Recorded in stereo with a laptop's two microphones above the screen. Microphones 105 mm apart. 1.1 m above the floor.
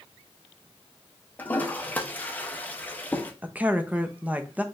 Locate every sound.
1.4 s a toilet flushing: 15° left (ahead or behind), 0.7 m
3.4 s a woman speaking: 15° right (ahead or behind), 0.7 m